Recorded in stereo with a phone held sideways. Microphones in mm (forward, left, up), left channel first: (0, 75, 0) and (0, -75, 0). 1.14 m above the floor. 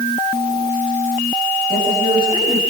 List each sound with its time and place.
1.7 s a woman speaking: 35° right (ahead or behind), 7 m